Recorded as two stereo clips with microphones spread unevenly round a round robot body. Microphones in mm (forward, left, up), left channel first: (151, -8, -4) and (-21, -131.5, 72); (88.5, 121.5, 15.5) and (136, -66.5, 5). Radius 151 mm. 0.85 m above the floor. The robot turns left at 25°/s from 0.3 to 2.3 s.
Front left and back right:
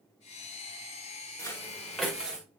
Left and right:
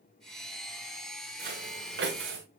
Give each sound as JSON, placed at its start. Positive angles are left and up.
{"t": 1.4, "sound": "footsteps", "azimuth_deg": -45, "distance_m": 4.5}